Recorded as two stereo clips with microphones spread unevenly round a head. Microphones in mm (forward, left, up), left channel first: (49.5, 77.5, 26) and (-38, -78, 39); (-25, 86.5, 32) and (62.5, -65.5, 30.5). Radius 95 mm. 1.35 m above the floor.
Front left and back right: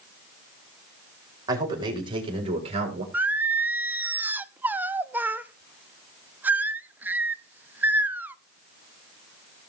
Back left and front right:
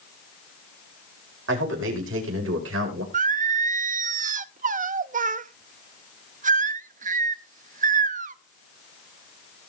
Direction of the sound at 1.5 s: 50° right.